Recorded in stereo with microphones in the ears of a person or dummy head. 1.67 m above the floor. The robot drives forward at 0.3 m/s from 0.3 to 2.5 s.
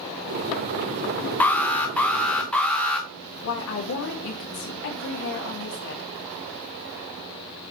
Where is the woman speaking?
75° left (ahead or behind), 2 m.